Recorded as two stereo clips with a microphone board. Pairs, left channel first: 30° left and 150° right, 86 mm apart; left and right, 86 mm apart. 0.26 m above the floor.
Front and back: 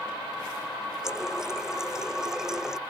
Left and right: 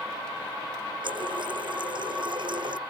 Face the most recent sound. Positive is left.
turn(degrees=-65)